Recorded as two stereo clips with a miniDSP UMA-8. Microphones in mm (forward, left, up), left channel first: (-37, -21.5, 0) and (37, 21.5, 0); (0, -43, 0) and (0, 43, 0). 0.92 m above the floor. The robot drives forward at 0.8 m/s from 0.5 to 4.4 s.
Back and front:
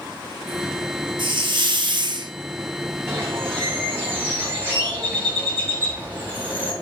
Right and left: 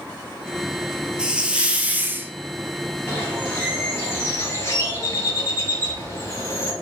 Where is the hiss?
10° left, 1.5 m; by 2.3 s 30° left, 0.7 m.